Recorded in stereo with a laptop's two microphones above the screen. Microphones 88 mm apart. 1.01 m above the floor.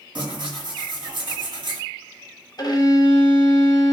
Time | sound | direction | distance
0.1 | tearing paper | 65° right (ahead or behind) | 1.8 m
2.6 | a violin | 50° left (ahead or behind) | 0.7 m